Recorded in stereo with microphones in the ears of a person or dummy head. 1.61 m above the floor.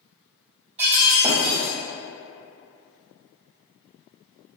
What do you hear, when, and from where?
0.8 s breaking glass: 35° right (ahead or behind), 1.9 m